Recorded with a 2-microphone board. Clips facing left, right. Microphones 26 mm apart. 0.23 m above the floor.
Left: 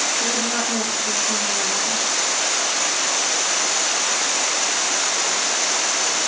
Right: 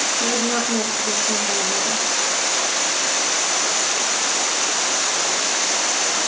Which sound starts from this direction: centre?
A woman speaking, at 0.2 s.